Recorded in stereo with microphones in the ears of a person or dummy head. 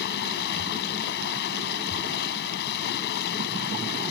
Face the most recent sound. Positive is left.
turn(degrees=60)  # may be behind; listen again after turning